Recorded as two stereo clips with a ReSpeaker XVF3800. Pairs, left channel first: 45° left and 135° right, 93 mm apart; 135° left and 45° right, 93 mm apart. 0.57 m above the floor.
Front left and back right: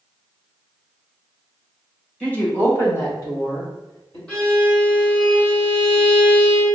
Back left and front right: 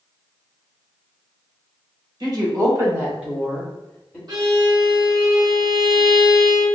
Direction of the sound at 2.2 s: 30° right.